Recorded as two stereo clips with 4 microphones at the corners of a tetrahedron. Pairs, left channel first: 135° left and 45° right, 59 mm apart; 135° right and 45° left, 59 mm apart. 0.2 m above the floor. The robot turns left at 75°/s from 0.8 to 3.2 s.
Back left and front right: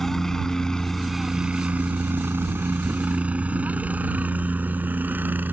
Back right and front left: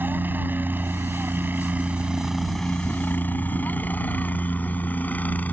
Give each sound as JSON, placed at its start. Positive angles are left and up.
{"t": 0.0, "sound": "a helicopter", "azimuth_deg": 55}